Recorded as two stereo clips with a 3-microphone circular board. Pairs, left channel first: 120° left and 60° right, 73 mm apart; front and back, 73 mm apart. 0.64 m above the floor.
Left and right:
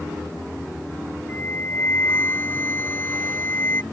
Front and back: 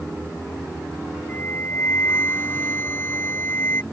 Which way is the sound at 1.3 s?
60° left.